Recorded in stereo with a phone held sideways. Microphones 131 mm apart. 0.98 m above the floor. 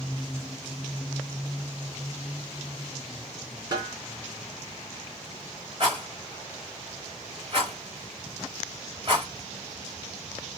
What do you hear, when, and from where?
3.7 s a snare drum: 30° right (ahead or behind), 3 m
5.8 s a rattle: 35° right (ahead or behind), 3.5 m